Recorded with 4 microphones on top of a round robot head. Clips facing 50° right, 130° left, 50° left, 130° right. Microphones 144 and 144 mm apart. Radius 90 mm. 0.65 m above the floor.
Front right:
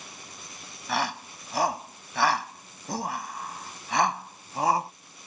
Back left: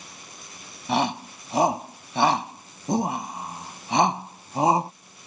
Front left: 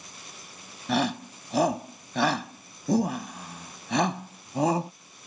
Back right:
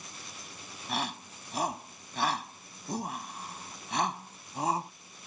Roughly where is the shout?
Ahead left.